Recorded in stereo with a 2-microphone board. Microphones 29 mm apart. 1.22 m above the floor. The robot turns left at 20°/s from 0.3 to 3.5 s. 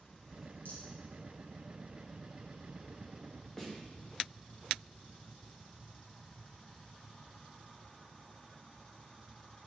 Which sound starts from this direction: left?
A rattle, at 0.7 s.